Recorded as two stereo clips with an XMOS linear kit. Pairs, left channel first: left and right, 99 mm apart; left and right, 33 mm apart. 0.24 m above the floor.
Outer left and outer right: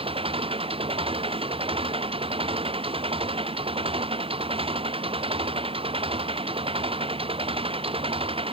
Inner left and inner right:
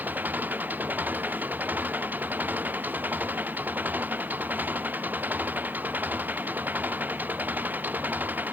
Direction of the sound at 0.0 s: 70° right (ahead or behind).